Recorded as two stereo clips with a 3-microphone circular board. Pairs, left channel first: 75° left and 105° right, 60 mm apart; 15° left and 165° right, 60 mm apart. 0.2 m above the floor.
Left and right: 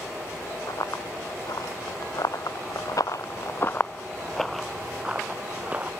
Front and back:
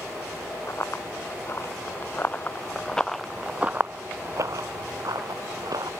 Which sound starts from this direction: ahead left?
Running footsteps, at 0.7 s.